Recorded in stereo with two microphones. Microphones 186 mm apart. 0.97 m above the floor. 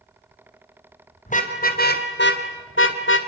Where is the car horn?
40° left (ahead or behind), 3 m; by 3.2 s 75° left (ahead or behind), 2 m.